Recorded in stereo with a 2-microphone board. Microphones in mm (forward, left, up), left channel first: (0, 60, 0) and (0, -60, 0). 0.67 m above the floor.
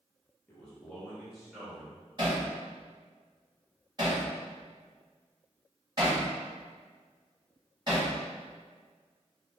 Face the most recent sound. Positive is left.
turn(degrees=-40)  # may be behind; listen again after turning